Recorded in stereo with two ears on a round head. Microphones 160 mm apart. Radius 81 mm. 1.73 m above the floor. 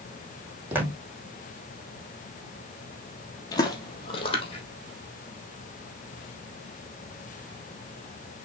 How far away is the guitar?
No guitar in this recording.